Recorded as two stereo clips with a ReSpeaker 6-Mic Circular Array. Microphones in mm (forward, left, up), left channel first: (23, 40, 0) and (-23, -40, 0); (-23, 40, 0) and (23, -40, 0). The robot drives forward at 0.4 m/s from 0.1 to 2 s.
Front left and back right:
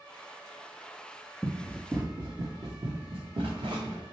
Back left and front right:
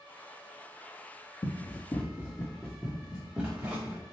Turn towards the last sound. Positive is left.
turn(degrees=-130)